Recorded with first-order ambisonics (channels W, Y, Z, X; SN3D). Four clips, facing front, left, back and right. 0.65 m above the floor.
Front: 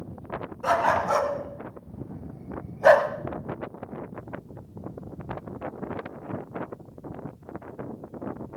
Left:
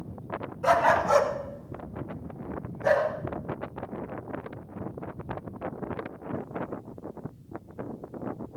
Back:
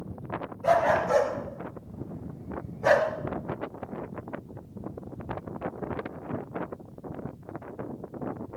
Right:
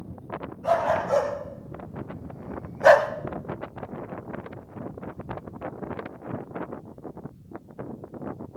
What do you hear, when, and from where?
0.6 s a dog barking: 45° left, 2 m; by 3.1 s 60° right, 1.3 m